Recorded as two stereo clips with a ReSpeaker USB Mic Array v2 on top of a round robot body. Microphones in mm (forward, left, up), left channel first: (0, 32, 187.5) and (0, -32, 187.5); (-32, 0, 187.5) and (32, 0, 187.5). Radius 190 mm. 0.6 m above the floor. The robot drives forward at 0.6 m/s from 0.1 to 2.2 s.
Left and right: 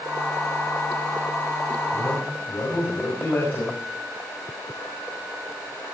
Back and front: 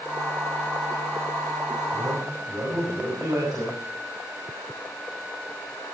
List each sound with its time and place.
1.9 s a man speaking: 30° left, 6.5 m